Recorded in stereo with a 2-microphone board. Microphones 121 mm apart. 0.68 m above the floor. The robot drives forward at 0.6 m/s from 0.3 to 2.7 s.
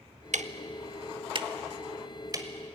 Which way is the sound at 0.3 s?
75° right (ahead or behind).